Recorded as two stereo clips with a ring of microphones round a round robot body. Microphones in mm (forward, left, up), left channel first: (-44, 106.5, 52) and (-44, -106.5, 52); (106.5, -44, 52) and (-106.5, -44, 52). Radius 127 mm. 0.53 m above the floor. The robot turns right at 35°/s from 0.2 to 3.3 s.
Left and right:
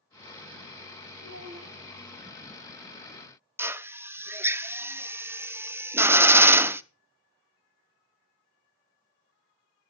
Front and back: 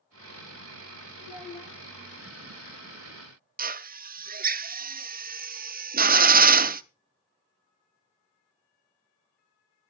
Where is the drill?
165° right, 0.7 m.